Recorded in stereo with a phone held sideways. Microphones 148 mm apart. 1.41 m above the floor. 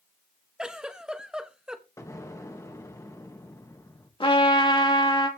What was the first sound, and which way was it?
A giggle, 5° right (ahead or behind).